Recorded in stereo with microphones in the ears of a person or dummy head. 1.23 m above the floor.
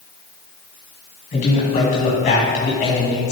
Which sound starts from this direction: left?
A man speaking, at 1.3 s.